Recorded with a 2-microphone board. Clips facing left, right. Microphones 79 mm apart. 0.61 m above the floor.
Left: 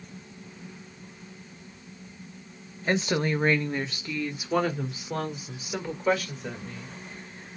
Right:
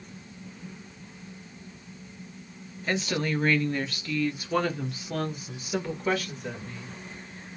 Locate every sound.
2.9 s a woman speaking: 30° left (ahead or behind), 0.8 m; by 7.0 s centre (ahead or behind), 2.5 m